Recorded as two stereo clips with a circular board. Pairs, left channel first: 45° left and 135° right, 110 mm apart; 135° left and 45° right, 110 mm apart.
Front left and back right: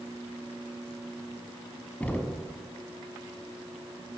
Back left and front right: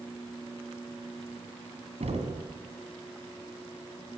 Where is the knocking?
30° right, 2.5 m.